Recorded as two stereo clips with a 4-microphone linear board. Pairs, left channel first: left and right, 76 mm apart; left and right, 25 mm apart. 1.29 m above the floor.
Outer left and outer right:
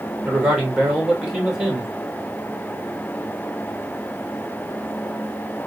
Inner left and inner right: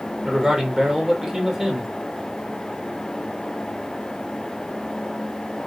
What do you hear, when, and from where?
0.2 s a man speaking: 10° right (ahead or behind), 2 m